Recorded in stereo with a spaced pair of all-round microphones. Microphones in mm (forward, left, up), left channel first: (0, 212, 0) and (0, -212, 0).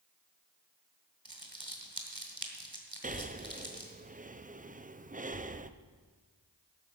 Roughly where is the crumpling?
Right.